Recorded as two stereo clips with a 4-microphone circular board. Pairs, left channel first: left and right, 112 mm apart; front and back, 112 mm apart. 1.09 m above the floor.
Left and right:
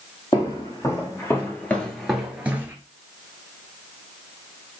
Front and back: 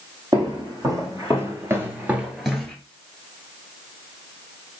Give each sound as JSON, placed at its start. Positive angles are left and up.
{"t": 0.3, "sound": "footsteps", "azimuth_deg": 135, "distance_m": 1.8}